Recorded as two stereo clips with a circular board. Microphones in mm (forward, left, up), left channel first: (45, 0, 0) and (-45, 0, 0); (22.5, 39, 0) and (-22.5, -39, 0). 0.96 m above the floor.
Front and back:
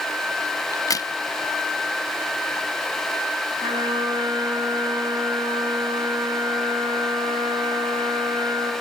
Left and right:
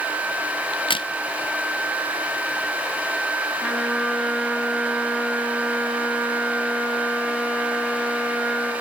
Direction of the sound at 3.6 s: 150° left.